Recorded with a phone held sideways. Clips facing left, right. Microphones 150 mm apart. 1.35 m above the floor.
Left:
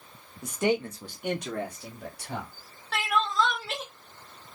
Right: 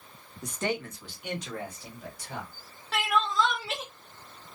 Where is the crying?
5° right (ahead or behind), 0.8 m.